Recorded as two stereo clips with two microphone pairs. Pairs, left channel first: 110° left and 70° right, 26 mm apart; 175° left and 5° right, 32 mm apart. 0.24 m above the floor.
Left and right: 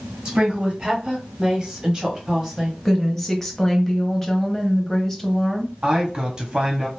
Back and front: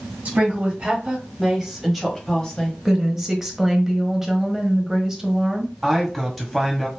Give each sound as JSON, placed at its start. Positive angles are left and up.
{"t": 0.2, "sound": "a woman speaking", "azimuth_deg": -20, "distance_m": 2.0}
{"t": 2.9, "sound": "a woman speaking", "azimuth_deg": 50, "distance_m": 1.0}
{"t": 5.8, "sound": "a man speaking", "azimuth_deg": -95, "distance_m": 1.2}